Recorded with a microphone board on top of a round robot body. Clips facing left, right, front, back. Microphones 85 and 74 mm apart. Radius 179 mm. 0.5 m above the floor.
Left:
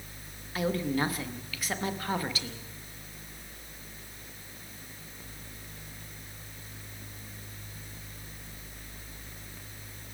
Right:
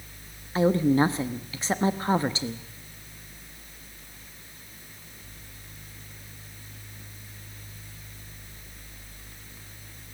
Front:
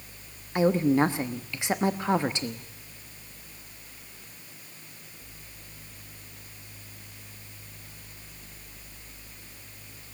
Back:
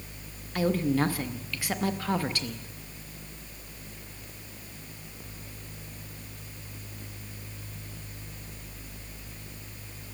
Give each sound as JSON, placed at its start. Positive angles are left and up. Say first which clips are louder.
{"t": 0.6, "sound": "a woman speaking", "louder": "right 8 dB, front 4 dB", "azimuth_deg": -50, "distance_m": 1.4}